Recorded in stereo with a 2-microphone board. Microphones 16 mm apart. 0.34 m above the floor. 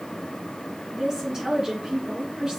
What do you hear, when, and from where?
0.9 s a woman speaking: 30° right (ahead or behind), 3 m; by 2.6 s 50° right (ahead or behind), 3.5 m